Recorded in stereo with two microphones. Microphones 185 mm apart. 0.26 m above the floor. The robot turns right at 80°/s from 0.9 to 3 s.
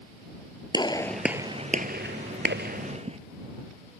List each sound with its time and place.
0.7 s a gunshot: 25° left (ahead or behind); by 3.2 s 35° right (ahead or behind)